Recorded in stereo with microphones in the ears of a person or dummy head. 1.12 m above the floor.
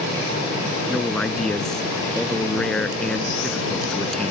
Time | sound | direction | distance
0.9 | a man speaking | centre (ahead or behind) | ?